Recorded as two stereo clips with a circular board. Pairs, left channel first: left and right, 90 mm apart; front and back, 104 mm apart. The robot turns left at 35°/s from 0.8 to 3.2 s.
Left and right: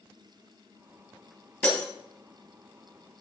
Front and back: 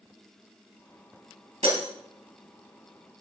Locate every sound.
1.6 s breaking glass: 160° left, 3 m; by 1.8 s 150° left, 3 m